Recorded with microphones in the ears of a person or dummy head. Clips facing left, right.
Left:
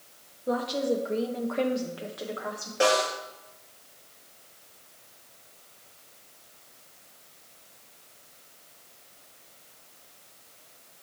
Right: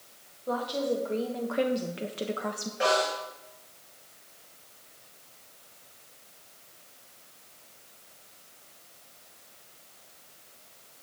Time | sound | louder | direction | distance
0.5 | a woman speaking | left 2 dB | 30° left (ahead or behind) | 1.6 m
2.8 | a snare drum | left 2 dB | 55° left (ahead or behind) | 3.5 m